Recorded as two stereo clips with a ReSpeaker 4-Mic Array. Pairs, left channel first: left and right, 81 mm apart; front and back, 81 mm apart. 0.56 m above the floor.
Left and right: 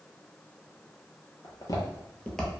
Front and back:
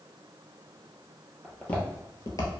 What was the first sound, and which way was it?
Footsteps, 80° left.